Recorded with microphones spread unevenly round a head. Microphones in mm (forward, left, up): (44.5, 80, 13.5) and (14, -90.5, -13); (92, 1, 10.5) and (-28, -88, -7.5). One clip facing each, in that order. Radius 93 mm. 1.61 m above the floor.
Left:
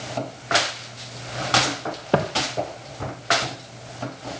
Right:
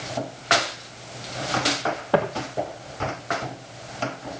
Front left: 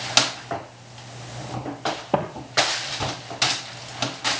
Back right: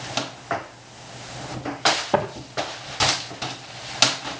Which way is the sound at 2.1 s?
105° left.